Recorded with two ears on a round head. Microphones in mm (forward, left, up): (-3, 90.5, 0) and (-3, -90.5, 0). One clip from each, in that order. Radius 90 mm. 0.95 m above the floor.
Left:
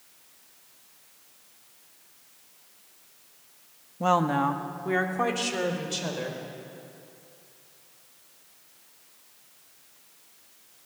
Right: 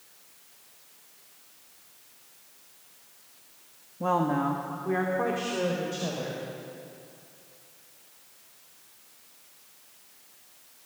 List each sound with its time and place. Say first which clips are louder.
4.0 s a woman speaking: left 3 dB; 65° left (ahead or behind), 1.2 m; by 6.4 s 85° left, 4 m